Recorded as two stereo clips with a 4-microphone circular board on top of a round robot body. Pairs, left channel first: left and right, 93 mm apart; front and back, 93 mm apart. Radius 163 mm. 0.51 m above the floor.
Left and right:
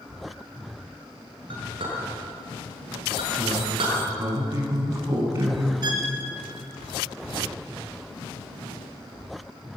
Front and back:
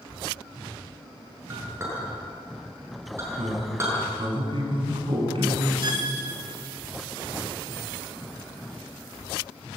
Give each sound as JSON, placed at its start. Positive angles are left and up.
{"t": 1.5, "sound": "a clink", "azimuth_deg": -120, "distance_m": 6.5}
{"t": 3.4, "sound": "a man speaking", "azimuth_deg": -150, "distance_m": 5.5}
{"t": 5.8, "sound": "a violin", "azimuth_deg": -135, "distance_m": 2.5}